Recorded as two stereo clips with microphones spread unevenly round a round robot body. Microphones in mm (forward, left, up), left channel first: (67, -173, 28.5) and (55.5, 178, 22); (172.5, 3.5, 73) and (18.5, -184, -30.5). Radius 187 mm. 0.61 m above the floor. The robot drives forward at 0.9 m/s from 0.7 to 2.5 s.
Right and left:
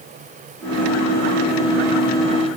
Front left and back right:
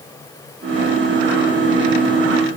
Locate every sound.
Only background noise.